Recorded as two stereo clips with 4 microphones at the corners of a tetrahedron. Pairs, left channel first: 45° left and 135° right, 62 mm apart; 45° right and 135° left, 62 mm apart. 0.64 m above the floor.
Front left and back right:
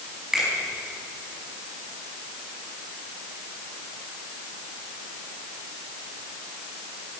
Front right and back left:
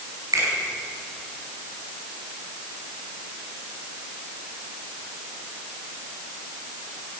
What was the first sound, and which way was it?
A finger snap, 140° left.